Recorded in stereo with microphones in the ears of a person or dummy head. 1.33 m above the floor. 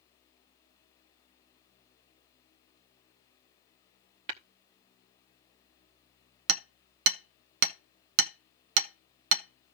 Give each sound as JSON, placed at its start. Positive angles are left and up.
{"t": 4.3, "sound": "tapping", "side_deg": -40, "distance_m": 0.9}
{"t": 6.5, "sound": "hammering", "side_deg": -75, "distance_m": 0.7}